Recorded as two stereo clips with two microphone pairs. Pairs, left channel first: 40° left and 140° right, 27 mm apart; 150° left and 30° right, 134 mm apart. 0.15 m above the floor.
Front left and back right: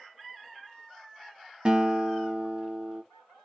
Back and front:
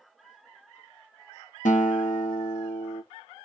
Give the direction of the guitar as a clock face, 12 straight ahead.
7 o'clock.